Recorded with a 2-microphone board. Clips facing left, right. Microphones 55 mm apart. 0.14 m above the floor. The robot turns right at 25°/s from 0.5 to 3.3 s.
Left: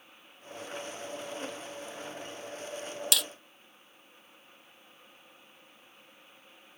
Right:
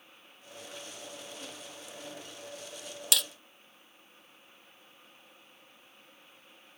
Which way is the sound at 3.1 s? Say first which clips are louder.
Even; centre (ahead or behind).